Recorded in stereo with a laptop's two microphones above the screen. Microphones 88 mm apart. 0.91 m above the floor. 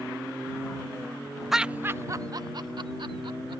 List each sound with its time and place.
1.5 s laughter: centre (ahead or behind); by 3.6 s 70° right (ahead or behind)